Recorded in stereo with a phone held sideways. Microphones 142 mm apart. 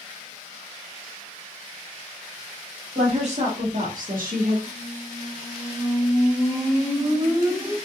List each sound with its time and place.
3.0 s a woman speaking: 45° right (ahead or behind), 1.4 m; by 4.6 s 85° right, 0.9 m
4.7 s a squeak: 20° right (ahead or behind), 1.7 m